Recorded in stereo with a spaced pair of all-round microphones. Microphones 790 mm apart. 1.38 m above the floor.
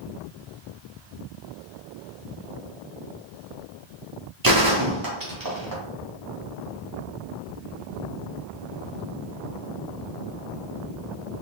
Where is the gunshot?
30° right (ahead or behind), 0.8 m.